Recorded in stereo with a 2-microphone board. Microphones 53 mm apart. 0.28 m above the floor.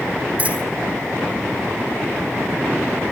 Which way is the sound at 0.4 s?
25° right (ahead or behind).